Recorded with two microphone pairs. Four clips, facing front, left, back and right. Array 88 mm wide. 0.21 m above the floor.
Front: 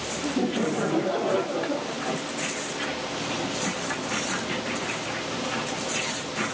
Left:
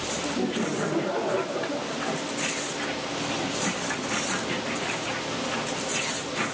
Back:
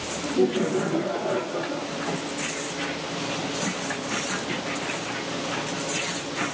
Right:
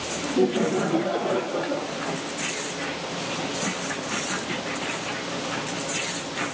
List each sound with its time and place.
0.2 s laughter: 75° right, 4.5 m; by 2.0 s 70° right, 5.5 m